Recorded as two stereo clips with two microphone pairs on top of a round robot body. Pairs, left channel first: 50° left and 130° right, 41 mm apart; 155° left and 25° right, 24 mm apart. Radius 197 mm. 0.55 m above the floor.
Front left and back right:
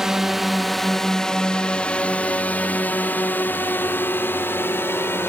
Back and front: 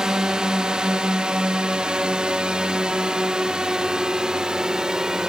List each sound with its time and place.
0.0 s a drone: 65° right; by 5.3 s 35° left